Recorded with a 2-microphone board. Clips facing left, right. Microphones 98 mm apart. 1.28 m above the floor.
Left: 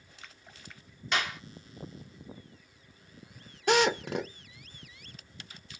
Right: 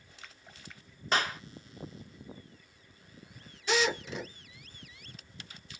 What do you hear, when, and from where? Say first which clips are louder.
1.1 s a clap: right 2 dB; 35° right (ahead or behind), 0.6 m
3.7 s a drill: left 5 dB; 55° left (ahead or behind), 0.7 m